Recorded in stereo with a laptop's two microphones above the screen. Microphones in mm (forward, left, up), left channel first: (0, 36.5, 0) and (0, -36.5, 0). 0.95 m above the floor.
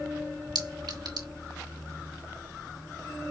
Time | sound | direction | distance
0.6 | a clink | 70° right (ahead or behind) | 2.5 m